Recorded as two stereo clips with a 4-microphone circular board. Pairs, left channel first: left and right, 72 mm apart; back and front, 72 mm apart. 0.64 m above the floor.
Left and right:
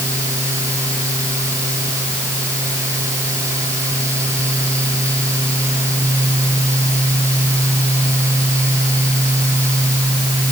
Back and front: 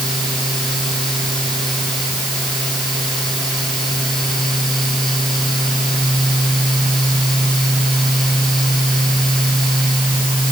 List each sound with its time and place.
Only background noise.